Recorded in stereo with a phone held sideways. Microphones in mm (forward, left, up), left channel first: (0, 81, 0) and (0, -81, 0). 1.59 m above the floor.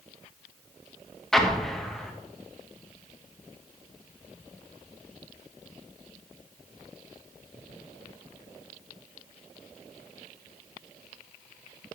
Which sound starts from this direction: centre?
An explosion, at 1.3 s.